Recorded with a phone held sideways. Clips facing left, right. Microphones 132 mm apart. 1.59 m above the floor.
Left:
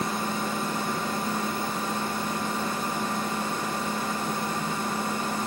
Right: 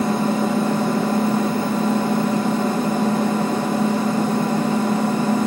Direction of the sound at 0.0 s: 80° right.